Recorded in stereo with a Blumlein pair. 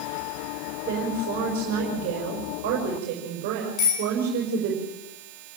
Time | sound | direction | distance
0.9 | a woman speaking | 45° right | 5.5 m
3.8 | a bicycle bell | 35° left | 10 m